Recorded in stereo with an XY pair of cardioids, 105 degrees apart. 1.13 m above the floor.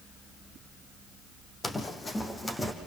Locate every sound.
1.6 s running footsteps: 35° left, 3.5 m; by 2.7 s 15° left, 4.5 m